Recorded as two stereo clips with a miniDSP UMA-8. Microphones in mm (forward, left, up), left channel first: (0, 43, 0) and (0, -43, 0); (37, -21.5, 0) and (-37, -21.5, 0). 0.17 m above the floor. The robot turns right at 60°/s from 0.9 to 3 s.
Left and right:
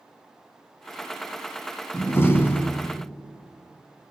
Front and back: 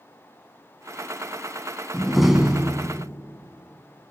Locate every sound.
1.9 s a door slam: 80° left, 1.0 m; by 3.0 s 140° left, 1.0 m